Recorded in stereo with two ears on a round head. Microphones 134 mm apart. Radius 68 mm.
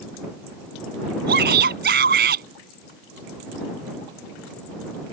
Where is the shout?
65° right (ahead or behind).